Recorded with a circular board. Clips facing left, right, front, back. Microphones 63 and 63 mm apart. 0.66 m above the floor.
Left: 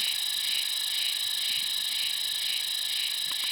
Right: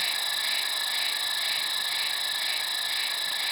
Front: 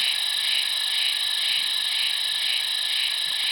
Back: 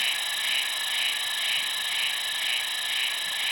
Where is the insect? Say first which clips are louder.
Right 4 dB, even; 105° right.